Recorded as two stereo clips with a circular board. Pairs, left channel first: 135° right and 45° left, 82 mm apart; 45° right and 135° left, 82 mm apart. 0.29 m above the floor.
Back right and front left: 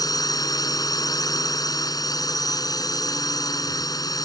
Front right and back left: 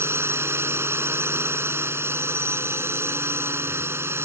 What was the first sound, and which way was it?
A drone, 170° right.